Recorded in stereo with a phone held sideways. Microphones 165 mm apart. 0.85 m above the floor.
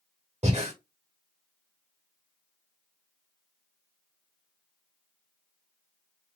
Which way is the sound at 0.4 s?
40° right (ahead or behind).